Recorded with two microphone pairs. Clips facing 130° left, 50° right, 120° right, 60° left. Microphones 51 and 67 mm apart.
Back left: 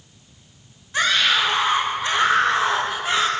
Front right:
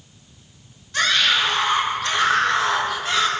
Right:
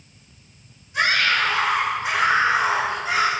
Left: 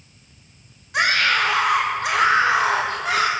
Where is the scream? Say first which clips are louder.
Even, left 1 dB; 60° left, 7 m; by 3.3 s 65° left, 4 m.